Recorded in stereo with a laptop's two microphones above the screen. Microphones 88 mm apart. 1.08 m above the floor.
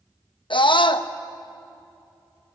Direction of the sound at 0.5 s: 70° left (ahead or behind).